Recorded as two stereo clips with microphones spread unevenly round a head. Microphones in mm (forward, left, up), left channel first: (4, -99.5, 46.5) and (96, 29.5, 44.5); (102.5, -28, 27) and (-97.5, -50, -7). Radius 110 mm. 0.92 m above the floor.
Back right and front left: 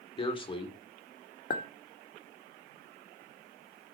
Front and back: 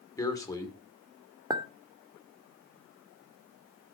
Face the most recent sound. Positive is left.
turn(degrees=-100)